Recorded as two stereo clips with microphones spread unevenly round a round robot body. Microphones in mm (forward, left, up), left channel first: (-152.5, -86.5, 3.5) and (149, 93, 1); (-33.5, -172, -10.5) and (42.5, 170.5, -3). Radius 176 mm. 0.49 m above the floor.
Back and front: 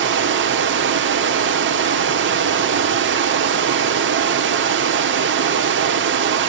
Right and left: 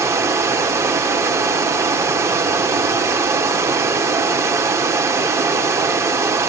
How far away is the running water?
About 1.2 m.